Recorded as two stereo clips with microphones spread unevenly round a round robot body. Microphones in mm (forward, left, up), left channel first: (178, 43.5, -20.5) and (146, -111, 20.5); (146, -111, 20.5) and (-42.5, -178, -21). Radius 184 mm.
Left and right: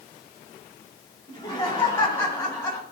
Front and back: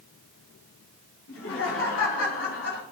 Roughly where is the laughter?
Ahead.